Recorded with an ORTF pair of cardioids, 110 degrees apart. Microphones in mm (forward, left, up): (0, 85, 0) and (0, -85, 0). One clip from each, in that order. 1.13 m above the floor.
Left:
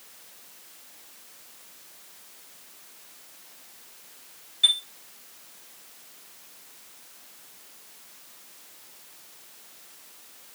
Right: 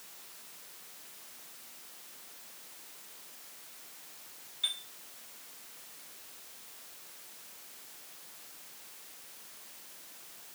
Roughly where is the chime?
Ahead left.